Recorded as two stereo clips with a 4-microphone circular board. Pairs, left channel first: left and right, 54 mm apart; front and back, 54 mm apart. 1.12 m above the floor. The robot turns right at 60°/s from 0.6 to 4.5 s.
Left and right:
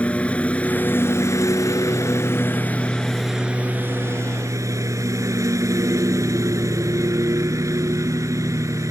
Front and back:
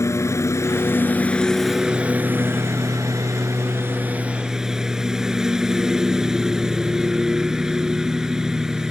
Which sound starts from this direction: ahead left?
A lawn mower, at 0.0 s.